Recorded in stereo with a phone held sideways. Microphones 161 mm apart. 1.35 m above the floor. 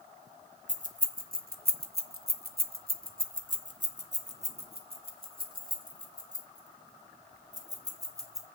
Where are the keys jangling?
50° right (ahead or behind), 1.4 m; by 8.5 s 20° right (ahead or behind), 4 m.